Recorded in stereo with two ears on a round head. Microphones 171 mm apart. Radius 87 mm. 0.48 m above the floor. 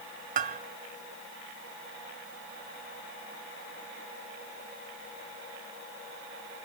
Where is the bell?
45° right (ahead or behind), 1.0 m.